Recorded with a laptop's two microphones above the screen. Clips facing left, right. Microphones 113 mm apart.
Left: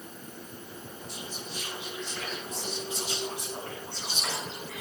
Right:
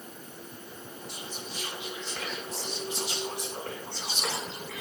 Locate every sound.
1.1 s whispering: 85° right, 3 m